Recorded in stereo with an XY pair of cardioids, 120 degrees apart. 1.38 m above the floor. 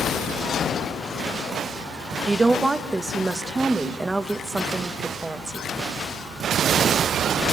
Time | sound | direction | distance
2.3 | a woman speaking | 15° right | 1.1 m